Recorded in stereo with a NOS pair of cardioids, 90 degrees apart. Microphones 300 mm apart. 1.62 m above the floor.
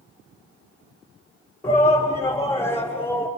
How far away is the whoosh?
No whoosh in this recording.